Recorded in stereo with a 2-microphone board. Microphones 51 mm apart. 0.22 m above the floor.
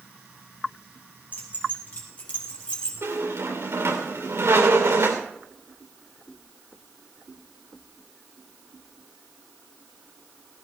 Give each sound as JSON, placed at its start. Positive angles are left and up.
{"t": 1.3, "sound": "keys jangling", "side_deg": 40, "distance_m": 4.5}
{"t": 3.0, "sound": "a squeak", "side_deg": -65, "distance_m": 3.0}